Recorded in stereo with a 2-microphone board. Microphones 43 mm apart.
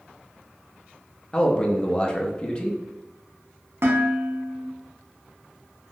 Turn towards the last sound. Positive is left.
turn(degrees=-65)  # may be behind; listen again after turning